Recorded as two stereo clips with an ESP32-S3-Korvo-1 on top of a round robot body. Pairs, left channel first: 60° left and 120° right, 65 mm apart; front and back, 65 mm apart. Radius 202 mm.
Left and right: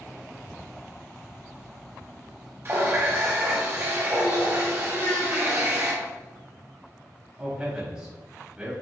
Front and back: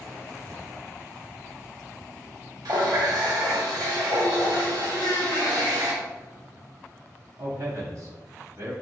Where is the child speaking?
10° left, 1.0 m.